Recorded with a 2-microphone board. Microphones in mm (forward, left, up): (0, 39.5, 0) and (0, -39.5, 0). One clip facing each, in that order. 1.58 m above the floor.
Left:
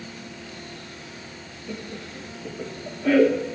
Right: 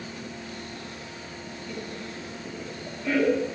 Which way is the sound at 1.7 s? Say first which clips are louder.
Left 2 dB; 65° left (ahead or behind).